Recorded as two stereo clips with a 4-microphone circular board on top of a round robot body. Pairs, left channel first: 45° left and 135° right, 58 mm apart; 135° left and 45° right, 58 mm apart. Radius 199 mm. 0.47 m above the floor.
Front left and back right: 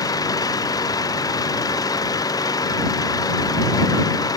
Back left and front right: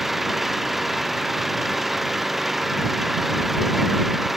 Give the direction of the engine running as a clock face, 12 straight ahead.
11 o'clock.